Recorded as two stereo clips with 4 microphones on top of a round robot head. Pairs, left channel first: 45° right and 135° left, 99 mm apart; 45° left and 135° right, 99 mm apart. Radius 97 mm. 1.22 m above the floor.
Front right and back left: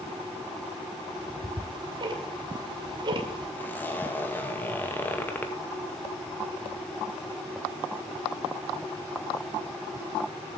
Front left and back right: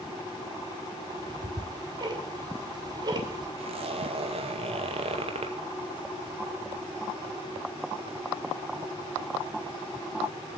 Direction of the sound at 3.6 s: 120° right.